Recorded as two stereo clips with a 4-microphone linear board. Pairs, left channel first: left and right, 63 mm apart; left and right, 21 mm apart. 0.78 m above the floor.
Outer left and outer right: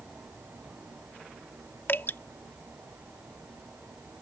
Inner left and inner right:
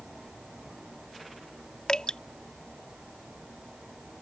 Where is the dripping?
35° left (ahead or behind).